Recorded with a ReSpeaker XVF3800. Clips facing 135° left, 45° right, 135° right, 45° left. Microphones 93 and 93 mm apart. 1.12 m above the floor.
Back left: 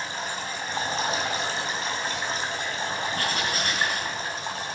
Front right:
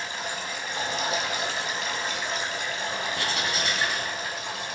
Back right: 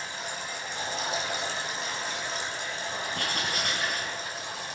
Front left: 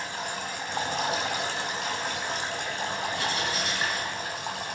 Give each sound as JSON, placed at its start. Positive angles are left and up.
{"t": 0.0, "sound": "running water", "azimuth_deg": 75, "distance_m": 2.5}
{"t": 3.1, "sound": "writing", "azimuth_deg": -175, "distance_m": 3.5}